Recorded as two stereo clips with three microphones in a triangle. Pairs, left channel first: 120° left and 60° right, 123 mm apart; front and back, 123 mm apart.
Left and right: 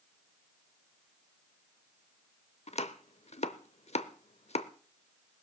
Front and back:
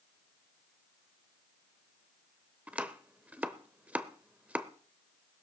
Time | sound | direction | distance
2.7 | chopping | 105° left | 0.7 m